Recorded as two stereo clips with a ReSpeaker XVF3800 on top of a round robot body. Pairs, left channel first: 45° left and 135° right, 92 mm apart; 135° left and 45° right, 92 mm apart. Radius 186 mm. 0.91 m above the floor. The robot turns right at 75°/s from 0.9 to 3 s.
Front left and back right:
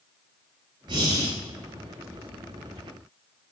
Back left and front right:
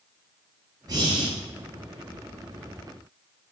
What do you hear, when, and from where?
0.9 s breathing: 95° right, 1.7 m; by 1.3 s 65° right, 1.7 m